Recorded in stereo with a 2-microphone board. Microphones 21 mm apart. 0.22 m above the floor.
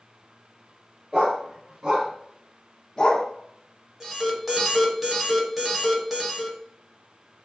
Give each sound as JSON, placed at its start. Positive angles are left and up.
{"t": 1.1, "sound": "a dog barking", "side_deg": -50, "distance_m": 1.3}
{"t": 4.0, "sound": "an alarm", "side_deg": -10, "distance_m": 0.8}